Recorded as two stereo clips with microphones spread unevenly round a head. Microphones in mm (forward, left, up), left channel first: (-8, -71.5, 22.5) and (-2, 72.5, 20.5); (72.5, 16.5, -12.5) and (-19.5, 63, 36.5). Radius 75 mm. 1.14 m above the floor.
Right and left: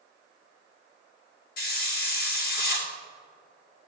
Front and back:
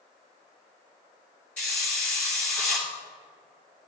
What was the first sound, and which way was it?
A hiss, 115° right.